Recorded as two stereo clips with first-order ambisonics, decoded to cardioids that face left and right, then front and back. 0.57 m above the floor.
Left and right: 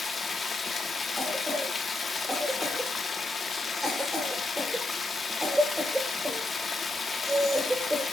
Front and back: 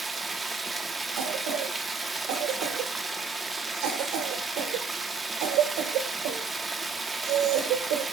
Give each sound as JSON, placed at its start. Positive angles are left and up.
{"t": 0.0, "sound": "running water", "azimuth_deg": 130, "distance_m": 0.9}
{"t": 1.2, "sound": "a cough", "azimuth_deg": -175, "distance_m": 1.5}